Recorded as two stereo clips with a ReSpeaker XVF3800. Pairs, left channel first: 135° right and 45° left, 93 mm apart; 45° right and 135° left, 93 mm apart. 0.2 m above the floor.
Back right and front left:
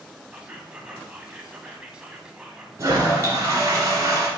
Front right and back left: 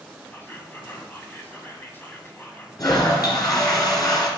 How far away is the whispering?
About 1.2 m.